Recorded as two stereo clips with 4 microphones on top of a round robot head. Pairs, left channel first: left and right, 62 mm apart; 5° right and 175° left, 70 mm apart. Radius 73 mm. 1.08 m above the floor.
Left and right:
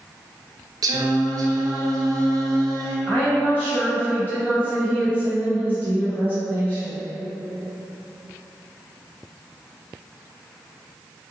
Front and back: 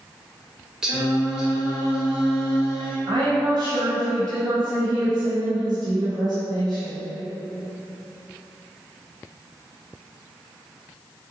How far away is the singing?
About 0.6 m.